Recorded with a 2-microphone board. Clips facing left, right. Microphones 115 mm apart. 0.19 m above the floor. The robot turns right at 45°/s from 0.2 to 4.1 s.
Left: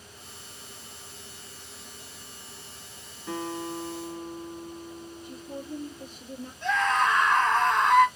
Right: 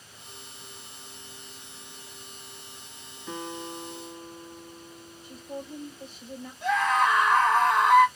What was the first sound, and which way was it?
A guitar, 15° left.